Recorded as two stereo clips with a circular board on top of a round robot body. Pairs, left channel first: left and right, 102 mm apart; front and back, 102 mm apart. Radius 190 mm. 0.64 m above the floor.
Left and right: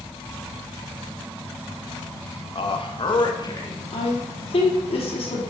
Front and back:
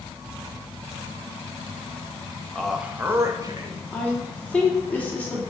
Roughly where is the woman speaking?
Left.